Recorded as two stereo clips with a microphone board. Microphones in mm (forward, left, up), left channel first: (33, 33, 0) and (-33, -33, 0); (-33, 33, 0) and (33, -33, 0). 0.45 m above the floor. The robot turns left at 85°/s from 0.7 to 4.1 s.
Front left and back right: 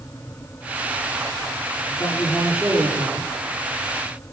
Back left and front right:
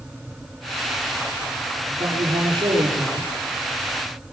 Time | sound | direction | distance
1.9 | a man speaking | 5° left | 9 m